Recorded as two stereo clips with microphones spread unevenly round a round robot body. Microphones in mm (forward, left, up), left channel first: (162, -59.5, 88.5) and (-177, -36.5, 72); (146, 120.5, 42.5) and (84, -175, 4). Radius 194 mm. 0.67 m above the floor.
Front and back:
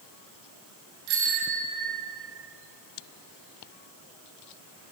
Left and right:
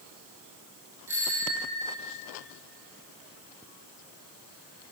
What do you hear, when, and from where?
1.1 s a bicycle bell: 175° left, 7 m; by 2.1 s straight behind, 7.5 m